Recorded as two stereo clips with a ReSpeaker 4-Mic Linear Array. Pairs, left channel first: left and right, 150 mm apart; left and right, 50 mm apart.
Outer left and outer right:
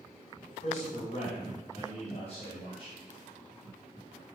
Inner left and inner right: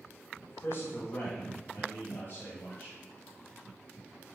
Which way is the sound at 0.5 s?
50° left (ahead or behind).